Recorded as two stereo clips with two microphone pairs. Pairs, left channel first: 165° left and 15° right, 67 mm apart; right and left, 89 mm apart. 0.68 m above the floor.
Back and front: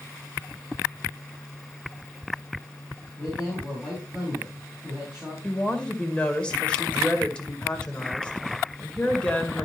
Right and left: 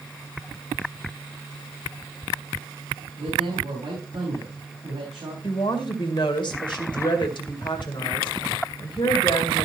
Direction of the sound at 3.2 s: 60° left.